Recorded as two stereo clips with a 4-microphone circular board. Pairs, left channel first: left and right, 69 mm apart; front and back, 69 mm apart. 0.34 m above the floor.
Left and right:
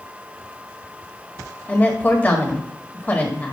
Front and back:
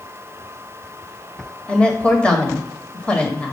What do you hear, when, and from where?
1.7 s a woman speaking: 60° left, 1.7 m